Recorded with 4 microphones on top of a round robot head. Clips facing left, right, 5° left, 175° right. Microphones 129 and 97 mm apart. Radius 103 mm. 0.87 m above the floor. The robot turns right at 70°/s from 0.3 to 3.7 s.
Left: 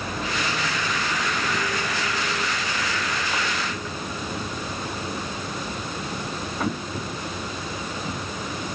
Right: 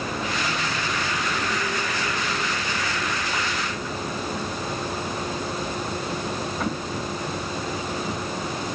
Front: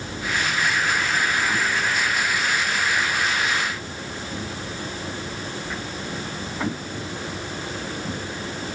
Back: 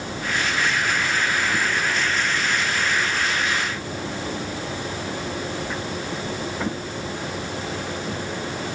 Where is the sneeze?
I don't hear a sneeze.